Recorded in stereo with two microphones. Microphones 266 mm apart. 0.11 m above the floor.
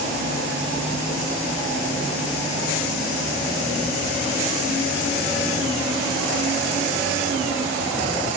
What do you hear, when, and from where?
Only background noise.